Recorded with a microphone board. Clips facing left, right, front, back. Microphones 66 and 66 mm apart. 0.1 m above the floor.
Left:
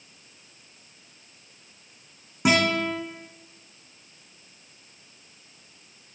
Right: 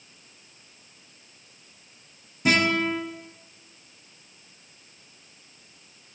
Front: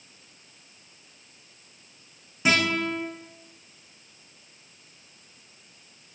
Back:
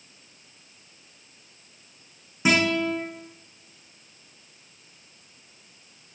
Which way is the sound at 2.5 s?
100° left.